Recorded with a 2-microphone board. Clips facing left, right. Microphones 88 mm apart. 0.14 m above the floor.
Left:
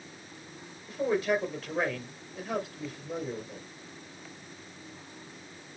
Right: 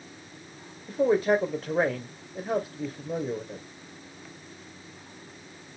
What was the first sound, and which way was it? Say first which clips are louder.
A man speaking: right 5 dB; 35° right (ahead or behind).